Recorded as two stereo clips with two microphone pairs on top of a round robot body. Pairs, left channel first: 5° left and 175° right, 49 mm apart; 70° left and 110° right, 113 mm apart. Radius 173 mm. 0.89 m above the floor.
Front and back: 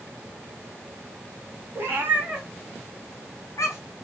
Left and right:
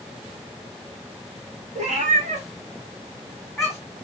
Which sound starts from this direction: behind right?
A cat meowing, at 1.8 s.